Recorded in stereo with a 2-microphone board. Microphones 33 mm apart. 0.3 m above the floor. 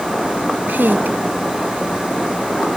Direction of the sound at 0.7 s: 75° right (ahead or behind).